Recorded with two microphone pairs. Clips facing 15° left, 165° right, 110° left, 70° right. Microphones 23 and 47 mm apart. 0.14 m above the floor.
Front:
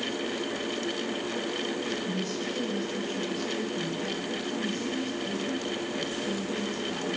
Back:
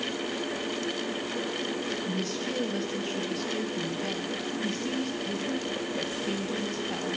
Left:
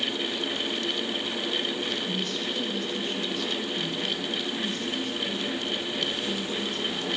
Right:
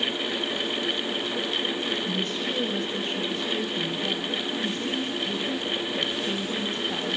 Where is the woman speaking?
120° right, 3 m.